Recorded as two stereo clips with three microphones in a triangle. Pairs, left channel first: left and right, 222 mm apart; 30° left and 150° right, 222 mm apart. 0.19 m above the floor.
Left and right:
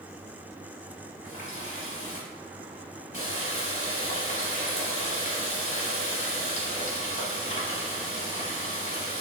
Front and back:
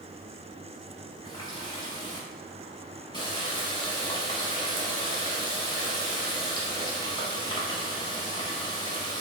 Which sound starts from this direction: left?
A running tap, at 1.2 s.